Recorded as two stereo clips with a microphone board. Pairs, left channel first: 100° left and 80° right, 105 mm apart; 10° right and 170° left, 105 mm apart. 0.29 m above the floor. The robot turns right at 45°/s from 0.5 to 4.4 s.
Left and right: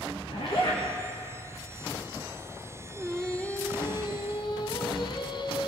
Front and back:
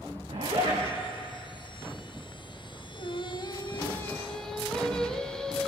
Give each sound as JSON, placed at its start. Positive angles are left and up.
{"t": 0.3, "sound": "a zipper", "azimuth_deg": 140, "distance_m": 7.5}
{"t": 2.9, "sound": "singing", "azimuth_deg": 5, "distance_m": 2.0}